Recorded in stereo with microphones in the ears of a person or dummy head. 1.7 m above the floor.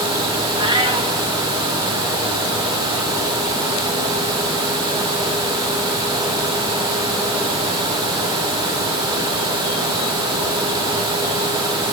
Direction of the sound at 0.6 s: 20° right (ahead or behind).